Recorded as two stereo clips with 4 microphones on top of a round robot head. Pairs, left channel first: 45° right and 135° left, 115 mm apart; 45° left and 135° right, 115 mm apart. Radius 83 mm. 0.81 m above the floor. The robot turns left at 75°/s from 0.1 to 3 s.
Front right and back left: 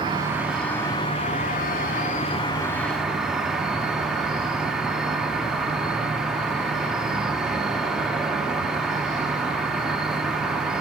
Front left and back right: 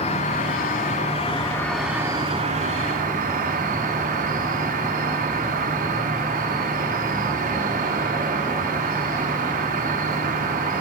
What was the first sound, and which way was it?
An insect, 80° left.